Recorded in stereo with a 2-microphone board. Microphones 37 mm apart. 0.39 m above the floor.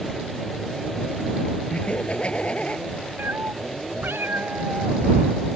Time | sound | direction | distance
1.7 | laughter | 30° left (ahead or behind) | ?
3.2 | a cat meowing | 85° right | ?